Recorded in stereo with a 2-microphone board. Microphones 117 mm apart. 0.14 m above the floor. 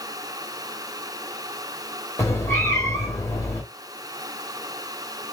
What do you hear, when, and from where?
2.2 s a cat meowing: 25° left (ahead or behind), 1.7 m